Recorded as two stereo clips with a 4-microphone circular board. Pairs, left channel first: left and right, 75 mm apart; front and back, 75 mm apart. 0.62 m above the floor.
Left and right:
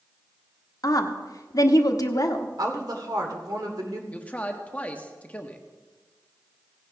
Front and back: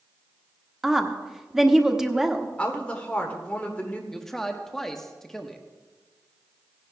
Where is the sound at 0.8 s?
100° left, 1.0 m.